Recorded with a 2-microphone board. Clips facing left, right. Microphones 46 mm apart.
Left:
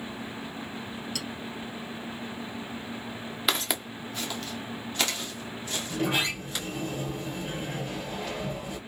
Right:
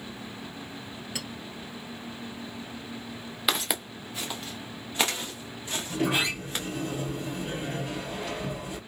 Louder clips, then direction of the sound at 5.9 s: Right 1 dB; 5° right (ahead or behind).